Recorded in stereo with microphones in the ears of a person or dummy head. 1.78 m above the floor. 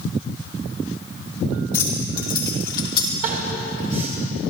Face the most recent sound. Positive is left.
turn(degrees=-45)  # may be behind; listen again after turning